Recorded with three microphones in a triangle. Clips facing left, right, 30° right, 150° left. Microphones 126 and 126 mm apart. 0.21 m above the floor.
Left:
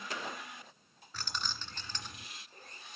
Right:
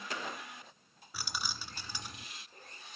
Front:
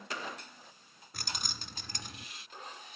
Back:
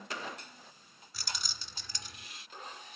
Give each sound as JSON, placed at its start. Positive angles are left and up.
{"t": 1.1, "sound": "keys jangling", "azimuth_deg": -10, "distance_m": 1.4}